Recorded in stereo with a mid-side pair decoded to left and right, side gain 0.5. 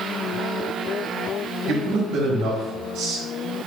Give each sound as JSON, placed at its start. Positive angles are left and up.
{"t": 1.7, "sound": "a man speaking", "azimuth_deg": -70, "distance_m": 1.2}